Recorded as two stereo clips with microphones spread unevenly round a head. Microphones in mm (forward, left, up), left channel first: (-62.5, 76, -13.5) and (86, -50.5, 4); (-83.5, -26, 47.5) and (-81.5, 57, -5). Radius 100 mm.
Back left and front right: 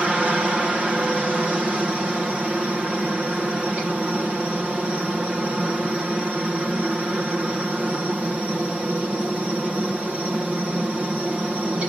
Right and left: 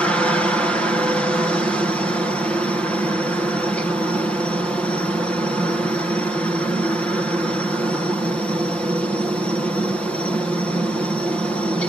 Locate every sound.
0.0 s a helicopter: 45° left